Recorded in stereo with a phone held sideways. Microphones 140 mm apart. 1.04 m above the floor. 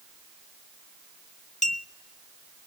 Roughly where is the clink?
Left.